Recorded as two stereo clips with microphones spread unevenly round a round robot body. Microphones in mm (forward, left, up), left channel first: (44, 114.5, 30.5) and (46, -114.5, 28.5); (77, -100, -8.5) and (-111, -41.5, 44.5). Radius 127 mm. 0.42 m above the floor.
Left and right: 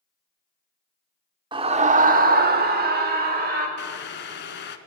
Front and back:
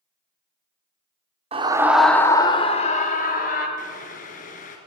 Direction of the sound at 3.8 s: 50° left.